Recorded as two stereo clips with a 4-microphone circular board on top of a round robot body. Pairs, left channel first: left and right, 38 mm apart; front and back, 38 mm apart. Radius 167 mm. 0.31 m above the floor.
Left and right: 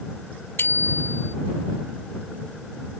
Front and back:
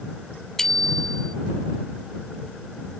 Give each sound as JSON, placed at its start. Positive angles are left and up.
{"t": 0.6, "sound": "a bicycle bell", "azimuth_deg": 80}